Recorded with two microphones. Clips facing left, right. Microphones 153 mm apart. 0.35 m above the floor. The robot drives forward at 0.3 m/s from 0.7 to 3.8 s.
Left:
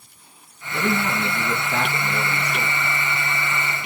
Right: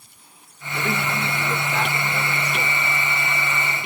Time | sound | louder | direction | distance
0.7 | a man speaking | left 3 dB | 70° left (ahead or behind) | 3.5 m